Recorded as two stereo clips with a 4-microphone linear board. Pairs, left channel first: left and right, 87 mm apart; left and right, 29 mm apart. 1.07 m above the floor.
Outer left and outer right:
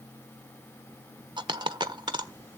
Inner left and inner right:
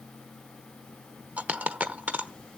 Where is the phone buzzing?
No phone buzzing in this recording.